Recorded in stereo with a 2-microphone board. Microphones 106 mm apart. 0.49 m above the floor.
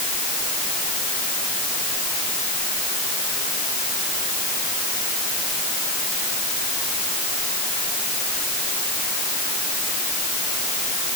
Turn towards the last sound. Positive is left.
No sound to turn to.